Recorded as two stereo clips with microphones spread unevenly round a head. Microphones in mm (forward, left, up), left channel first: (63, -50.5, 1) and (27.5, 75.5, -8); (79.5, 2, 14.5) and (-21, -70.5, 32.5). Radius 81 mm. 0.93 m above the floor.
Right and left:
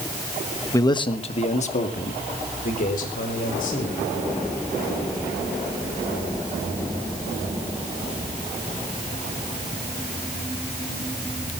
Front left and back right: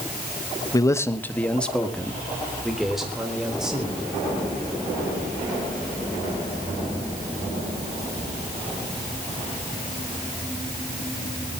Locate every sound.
0.7 s a man speaking: 10° right, 1.2 m; by 4.1 s 60° right, 5.5 m